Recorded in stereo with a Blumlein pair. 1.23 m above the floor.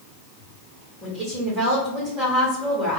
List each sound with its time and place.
1.0 s a woman speaking: 15° right, 1.5 m